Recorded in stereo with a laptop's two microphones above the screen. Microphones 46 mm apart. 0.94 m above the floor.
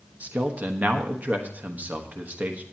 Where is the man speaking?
35° right (ahead or behind), 1.2 m.